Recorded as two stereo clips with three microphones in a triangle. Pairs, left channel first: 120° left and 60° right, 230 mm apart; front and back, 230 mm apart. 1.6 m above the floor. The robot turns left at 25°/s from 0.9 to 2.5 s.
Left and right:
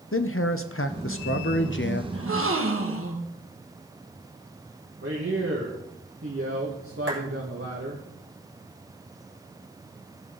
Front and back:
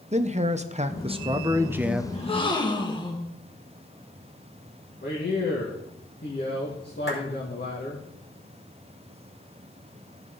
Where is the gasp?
60° right, 1.4 m; by 3.3 s 70° right, 1.4 m.